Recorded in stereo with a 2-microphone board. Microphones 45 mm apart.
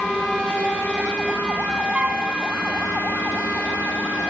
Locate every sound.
1.9 s a flute: 30° right (ahead or behind), 1.0 m